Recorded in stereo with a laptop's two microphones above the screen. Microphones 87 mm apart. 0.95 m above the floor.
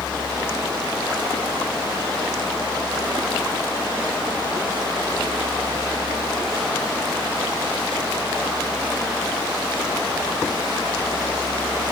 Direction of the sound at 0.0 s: 50° left (ahead or behind).